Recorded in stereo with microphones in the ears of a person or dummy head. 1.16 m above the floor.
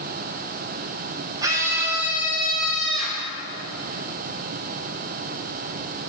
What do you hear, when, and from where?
1.4 s a scream: 15° right (ahead or behind), 0.7 m; by 3.3 s 5° left (ahead or behind), 1.5 m